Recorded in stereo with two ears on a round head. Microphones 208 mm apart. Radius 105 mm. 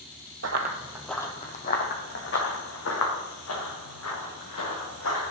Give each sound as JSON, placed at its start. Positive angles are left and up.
{"t": 0.4, "sound": "running footsteps", "side_deg": -50, "distance_m": 1.0}